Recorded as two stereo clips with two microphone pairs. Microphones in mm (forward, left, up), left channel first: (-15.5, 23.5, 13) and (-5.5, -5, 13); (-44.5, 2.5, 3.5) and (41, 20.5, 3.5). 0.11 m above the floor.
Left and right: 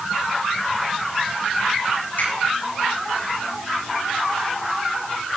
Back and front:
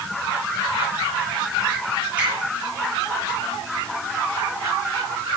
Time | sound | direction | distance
2.2 | a finger snap | 85° left | 6 m